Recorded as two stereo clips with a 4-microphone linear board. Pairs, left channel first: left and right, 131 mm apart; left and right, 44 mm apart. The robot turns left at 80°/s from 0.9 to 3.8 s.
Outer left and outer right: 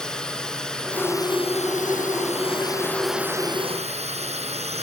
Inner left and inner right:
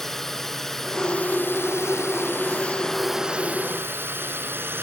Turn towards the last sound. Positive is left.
turn(degrees=-60)